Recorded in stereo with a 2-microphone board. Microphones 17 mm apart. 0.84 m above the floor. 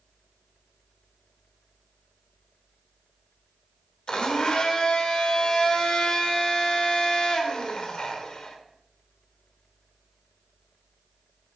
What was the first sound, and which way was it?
A blender, 50° left (ahead or behind).